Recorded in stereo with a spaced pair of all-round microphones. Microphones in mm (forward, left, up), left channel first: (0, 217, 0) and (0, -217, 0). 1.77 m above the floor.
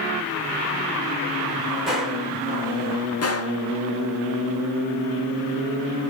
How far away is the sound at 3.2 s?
About 0.6 m.